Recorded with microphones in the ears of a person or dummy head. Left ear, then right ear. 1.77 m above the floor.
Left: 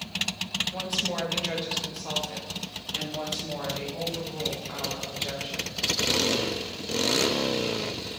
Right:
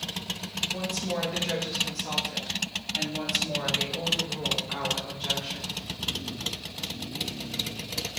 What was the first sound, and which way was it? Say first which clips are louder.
A woman speaking: left 2 dB; 25° left (ahead or behind).